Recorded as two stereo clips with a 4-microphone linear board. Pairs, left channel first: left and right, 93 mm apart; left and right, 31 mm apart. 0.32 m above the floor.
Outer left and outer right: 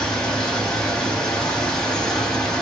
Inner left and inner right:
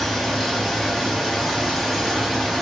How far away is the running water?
About 0.9 m.